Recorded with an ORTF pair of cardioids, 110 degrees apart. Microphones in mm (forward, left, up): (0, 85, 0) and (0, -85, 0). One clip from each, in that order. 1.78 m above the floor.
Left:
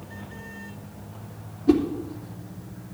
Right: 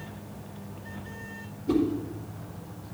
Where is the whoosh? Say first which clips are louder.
Left 6 dB; 70° left, 3 m.